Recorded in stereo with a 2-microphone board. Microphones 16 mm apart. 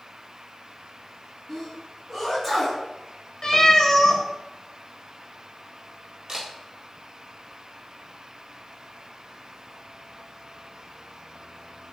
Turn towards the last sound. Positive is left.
turn(degrees=-40)  # may be behind; listen again after turning